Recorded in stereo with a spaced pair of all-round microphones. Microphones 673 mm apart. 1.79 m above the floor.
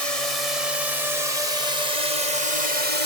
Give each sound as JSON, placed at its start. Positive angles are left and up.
{"t": 0.0, "sound": "a drone", "side_deg": 60}